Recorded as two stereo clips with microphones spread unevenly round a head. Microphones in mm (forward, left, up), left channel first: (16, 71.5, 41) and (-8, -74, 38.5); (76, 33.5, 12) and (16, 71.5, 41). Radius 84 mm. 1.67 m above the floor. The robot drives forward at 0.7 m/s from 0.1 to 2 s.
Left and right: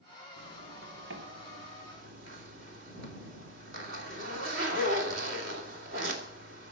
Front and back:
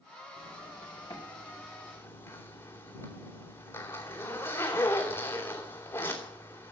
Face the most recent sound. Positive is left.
turn(degrees=-110)